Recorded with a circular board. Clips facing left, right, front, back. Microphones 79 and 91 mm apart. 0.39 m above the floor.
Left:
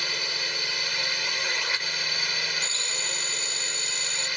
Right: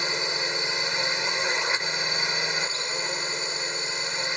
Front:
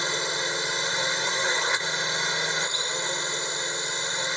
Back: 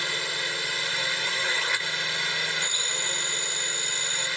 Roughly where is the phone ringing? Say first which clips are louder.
Right 4 dB, front 3 dB; behind.